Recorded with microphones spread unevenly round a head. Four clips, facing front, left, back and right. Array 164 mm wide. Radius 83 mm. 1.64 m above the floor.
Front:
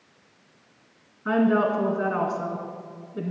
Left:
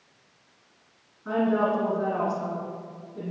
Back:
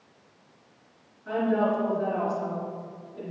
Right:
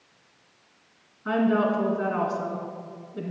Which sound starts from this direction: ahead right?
A woman speaking, at 1.2 s.